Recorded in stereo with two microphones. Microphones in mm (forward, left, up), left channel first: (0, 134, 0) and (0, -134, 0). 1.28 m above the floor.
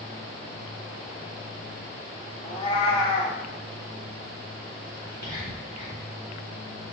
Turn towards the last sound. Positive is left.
turn(degrees=-85)